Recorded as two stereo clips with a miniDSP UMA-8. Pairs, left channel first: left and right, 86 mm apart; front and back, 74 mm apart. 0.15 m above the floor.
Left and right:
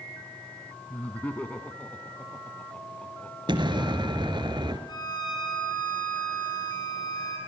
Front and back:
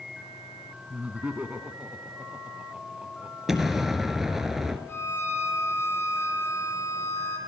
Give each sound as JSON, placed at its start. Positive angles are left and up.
{"t": 0.9, "sound": "laughter", "azimuth_deg": 135, "distance_m": 1.1}
{"t": 3.5, "sound": "an explosion", "azimuth_deg": -95, "distance_m": 2.0}
{"t": 4.9, "sound": "a violin", "azimuth_deg": 55, "distance_m": 5.5}